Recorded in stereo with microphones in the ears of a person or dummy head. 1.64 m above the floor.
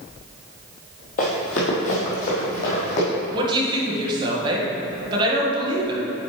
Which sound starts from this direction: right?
A woman speaking, at 3.3 s.